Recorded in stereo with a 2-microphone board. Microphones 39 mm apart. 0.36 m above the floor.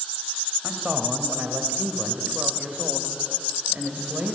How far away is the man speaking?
About 1.8 m.